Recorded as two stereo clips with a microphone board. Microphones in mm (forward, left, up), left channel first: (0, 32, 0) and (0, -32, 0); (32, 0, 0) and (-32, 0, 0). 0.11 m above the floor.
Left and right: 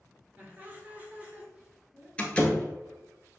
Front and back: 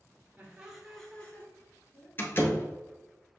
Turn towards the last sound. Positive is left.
turn(degrees=30)